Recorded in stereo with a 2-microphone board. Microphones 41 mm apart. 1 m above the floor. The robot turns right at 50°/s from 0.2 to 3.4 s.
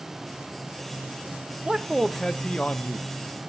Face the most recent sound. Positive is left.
turn(degrees=70)